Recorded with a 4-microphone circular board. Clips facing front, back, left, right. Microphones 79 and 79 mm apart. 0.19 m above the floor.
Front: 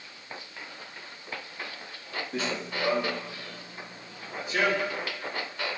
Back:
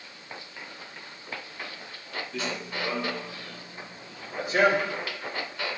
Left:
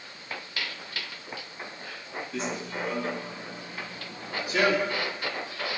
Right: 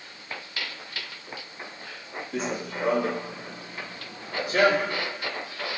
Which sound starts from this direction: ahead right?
Running footsteps, at 2.3 s.